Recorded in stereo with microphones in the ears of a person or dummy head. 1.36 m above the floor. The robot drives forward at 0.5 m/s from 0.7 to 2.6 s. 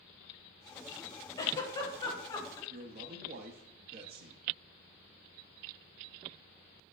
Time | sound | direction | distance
1.4 | a giggle | 25° left (ahead or behind) | 1.5 m
2.7 | a man speaking | 45° right (ahead or behind) | 0.9 m